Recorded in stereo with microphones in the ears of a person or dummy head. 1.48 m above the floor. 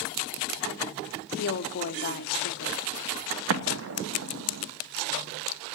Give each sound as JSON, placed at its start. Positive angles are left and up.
{"t": 1.4, "sound": "a woman speaking", "side_deg": 45, "distance_m": 0.6}
{"t": 3.5, "sound": "an explosion", "side_deg": -70, "distance_m": 0.8}